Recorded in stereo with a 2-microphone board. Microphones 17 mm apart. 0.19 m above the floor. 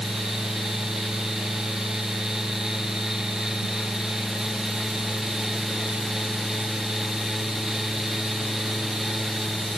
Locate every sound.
Only background noise.